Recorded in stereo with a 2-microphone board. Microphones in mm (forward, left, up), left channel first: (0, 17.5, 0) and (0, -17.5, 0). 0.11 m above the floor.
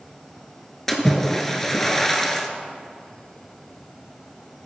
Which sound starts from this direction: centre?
A splash, at 0.9 s.